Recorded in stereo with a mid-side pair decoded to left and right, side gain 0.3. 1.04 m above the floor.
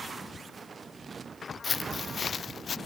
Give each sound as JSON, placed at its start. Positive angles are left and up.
{"t": 1.6, "sound": "footsteps", "azimuth_deg": 55}